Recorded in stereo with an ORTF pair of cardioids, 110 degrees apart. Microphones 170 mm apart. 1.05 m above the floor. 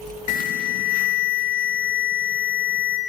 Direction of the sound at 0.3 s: 60° left.